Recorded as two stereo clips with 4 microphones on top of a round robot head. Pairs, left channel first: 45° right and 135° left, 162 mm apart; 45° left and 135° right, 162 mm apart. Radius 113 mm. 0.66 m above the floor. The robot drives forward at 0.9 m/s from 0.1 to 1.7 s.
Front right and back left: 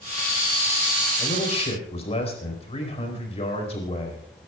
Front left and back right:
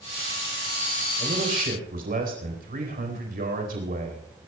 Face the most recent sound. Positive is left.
turn(degrees=-100)